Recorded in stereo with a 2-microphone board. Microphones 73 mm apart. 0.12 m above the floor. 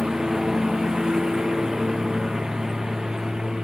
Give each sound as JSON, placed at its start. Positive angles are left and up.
{"t": 0.0, "sound": "a lawn mower", "side_deg": -10}